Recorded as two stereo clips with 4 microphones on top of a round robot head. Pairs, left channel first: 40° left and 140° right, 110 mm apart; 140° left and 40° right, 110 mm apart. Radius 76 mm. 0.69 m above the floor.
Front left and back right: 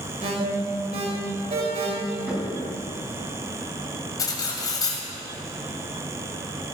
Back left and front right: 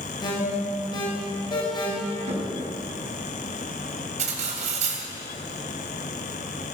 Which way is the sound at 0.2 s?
170° right.